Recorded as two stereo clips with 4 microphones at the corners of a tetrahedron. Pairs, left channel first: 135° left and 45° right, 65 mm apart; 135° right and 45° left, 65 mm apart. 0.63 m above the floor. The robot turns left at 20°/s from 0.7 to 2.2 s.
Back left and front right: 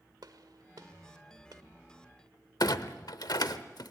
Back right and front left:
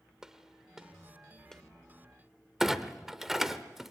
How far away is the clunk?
About 0.8 m.